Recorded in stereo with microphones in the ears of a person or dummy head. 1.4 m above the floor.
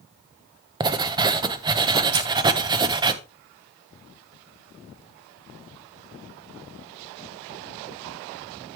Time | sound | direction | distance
0.8 | writing | 25° right (ahead or behind) | 0.8 m
2.1 | keys jangling | 60° right (ahead or behind) | 1.7 m